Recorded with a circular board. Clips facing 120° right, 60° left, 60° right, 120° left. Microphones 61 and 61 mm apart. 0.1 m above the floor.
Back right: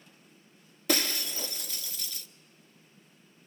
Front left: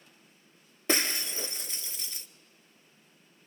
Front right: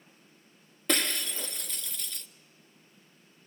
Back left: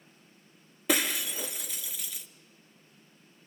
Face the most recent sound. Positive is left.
turn(degrees=45)